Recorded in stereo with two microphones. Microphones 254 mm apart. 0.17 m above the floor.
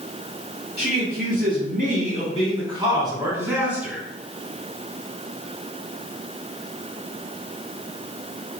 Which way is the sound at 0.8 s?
40° right (ahead or behind).